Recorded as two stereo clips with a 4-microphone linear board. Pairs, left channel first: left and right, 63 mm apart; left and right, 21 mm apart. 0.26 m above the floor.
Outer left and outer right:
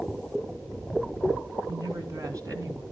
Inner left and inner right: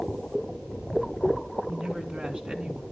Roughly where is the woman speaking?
Right.